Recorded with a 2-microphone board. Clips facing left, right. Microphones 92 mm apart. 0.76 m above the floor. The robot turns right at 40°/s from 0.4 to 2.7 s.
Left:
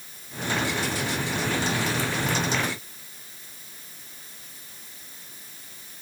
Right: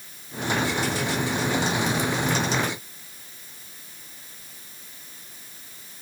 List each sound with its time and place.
Only background noise.